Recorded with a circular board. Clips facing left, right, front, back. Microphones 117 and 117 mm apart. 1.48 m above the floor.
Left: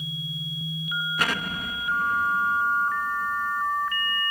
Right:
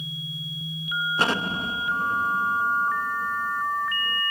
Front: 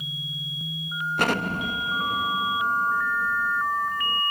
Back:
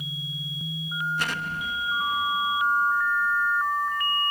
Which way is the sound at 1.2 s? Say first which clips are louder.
Right 4 dB, front 6 dB; 30° right.